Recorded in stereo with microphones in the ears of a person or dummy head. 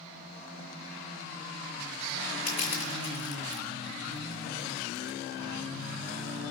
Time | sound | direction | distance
2.5 | crushing | 30° left (ahead or behind) | 5 m